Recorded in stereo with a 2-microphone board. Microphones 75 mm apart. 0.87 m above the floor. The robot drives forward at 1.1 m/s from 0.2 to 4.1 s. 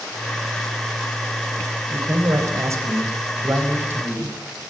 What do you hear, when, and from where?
1.9 s a man speaking: 50° right (ahead or behind), 4.5 m; by 4.4 s 30° right (ahead or behind), 6 m